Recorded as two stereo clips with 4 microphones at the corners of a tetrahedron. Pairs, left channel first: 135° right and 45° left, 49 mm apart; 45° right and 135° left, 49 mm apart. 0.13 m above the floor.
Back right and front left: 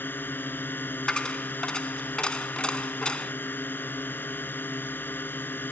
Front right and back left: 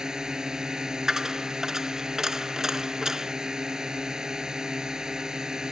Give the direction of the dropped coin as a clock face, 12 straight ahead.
5 o'clock.